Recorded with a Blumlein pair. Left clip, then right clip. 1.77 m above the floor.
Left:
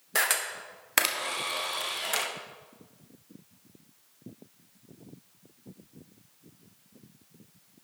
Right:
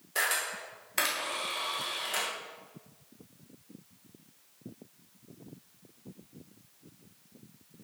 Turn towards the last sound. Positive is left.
turn(degrees=50)